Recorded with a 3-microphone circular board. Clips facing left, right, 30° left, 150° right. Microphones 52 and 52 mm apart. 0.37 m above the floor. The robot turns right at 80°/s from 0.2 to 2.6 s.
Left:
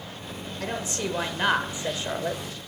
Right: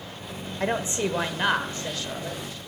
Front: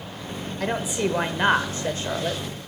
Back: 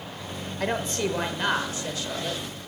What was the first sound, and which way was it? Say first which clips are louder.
A woman speaking: right 5 dB, front 2 dB; 65° right.